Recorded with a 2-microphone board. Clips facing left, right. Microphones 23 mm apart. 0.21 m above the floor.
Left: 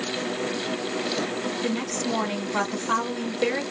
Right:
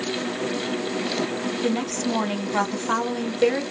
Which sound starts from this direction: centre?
A woman speaking, at 1.6 s.